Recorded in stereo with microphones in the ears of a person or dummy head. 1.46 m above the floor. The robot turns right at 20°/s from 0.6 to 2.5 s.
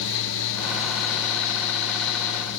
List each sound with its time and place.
Only background noise.